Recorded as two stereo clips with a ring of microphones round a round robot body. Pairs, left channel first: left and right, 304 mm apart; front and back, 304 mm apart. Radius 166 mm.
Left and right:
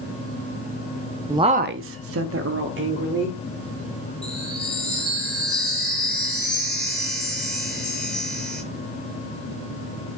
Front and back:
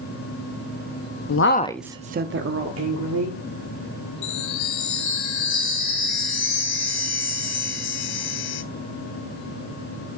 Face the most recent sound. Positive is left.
turn(degrees=0)